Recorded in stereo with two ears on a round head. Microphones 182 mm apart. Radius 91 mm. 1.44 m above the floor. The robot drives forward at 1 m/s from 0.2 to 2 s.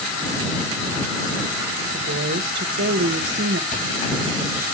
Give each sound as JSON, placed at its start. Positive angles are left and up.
{"t": 1.9, "sound": "a woman speaking", "side_deg": -60, "distance_m": 1.4}
{"t": 3.7, "sound": "a thud", "side_deg": 35, "distance_m": 9.0}